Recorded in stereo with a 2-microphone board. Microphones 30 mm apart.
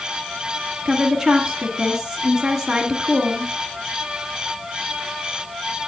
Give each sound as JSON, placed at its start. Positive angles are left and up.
{"t": 0.8, "sound": "a woman speaking", "side_deg": -10, "distance_m": 1.7}